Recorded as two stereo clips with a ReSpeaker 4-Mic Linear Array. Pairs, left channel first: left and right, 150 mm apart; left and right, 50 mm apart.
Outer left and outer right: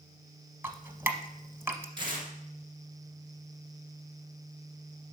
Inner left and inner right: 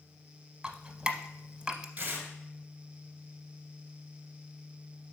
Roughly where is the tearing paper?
Right.